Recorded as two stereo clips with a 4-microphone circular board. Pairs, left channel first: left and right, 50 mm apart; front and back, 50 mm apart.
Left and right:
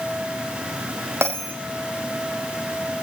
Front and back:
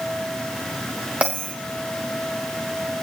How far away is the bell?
About 5 m.